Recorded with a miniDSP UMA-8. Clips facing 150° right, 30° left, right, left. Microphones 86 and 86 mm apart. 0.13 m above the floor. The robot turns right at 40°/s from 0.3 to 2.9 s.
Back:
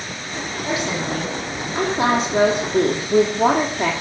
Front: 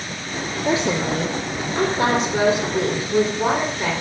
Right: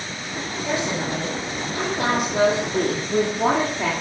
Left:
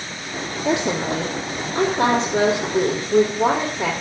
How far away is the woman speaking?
About 3 m.